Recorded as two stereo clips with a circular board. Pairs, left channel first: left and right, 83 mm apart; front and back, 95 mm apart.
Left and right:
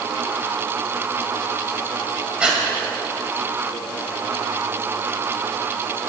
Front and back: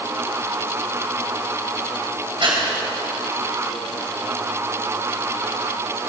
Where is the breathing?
165° right, 2.5 m.